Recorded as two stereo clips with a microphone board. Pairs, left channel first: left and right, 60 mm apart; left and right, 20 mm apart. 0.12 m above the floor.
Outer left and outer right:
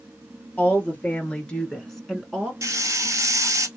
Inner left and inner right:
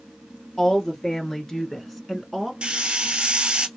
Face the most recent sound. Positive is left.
turn(degrees=-65)  # may be behind; listen again after turning